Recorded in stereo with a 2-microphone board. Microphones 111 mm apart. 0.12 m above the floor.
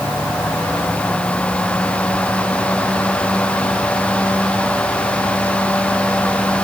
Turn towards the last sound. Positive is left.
No sound to turn to.